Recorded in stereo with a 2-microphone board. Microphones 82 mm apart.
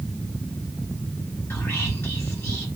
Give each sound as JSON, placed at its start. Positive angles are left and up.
{"t": 1.5, "sound": "whispering", "side_deg": 25, "distance_m": 1.7}